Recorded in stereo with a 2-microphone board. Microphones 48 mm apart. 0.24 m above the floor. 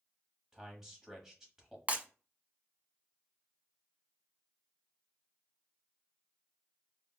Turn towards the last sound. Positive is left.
turn(degrees=-35)  # may be behind; listen again after turning